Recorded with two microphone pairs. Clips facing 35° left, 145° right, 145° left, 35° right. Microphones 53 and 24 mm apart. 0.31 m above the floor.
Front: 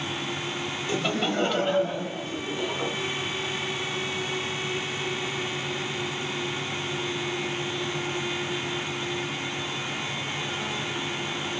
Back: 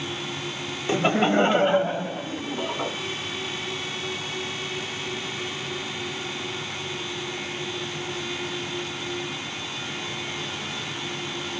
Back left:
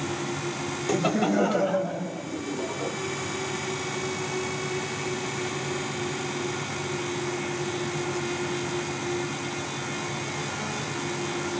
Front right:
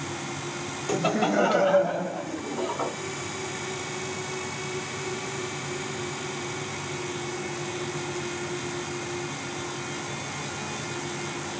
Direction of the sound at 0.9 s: 130° right.